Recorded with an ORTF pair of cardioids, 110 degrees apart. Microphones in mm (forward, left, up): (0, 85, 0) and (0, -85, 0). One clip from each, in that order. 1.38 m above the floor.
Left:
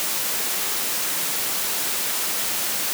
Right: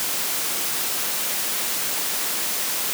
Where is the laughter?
I don't hear laughter.